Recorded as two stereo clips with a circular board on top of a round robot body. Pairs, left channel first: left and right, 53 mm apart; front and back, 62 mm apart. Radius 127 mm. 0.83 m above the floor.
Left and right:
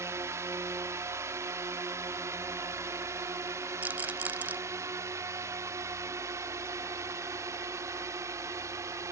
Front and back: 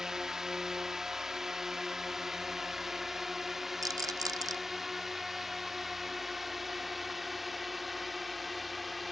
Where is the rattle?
150° right.